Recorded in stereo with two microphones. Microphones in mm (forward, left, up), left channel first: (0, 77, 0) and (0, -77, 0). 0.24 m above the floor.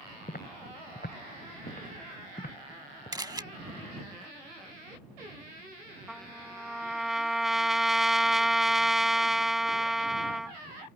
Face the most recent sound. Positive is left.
turn(degrees=0)  # may be behind; listen again after turning